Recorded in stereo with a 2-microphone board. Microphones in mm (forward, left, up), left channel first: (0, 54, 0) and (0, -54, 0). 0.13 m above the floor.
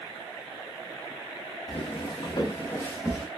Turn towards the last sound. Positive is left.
turn(degrees=5)  # may be behind; listen again after turning